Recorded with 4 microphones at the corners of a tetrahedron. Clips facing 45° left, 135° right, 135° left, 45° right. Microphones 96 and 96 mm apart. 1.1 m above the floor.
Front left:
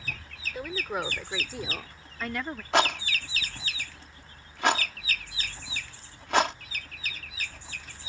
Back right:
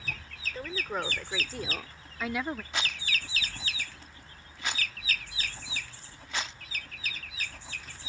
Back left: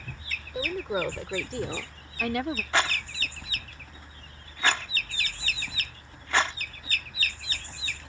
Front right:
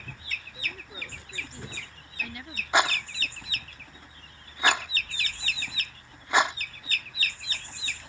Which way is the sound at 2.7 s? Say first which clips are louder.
Front left 11 dB, front right 5 dB; 30° left.